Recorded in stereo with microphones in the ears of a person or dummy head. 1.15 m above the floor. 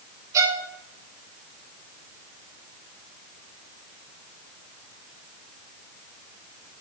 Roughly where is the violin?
Centre.